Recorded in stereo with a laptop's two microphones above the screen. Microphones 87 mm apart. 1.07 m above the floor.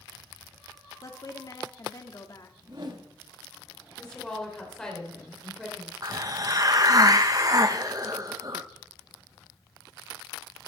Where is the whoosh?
50° right (ahead or behind), 1.5 m.